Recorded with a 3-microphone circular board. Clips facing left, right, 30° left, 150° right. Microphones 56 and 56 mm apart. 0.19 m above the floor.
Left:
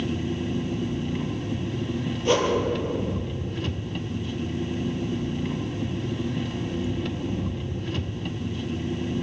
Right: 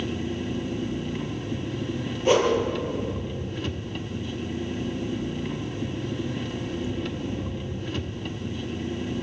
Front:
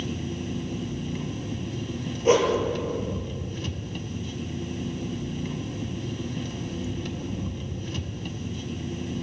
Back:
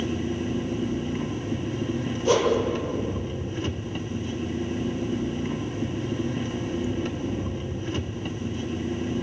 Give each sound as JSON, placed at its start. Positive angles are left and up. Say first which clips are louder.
{"t": 0.0, "sound": "an engine running", "louder": "left 1 dB, back 4 dB", "azimuth_deg": 175, "distance_m": 1.2}
{"t": 2.2, "sound": "a whoosh", "louder": "right 2 dB, front 1 dB", "azimuth_deg": -20, "distance_m": 5.5}